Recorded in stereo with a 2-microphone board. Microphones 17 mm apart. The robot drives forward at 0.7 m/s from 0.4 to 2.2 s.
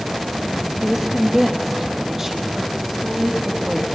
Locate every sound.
0.8 s a woman speaking: 10° right (ahead or behind), 4 m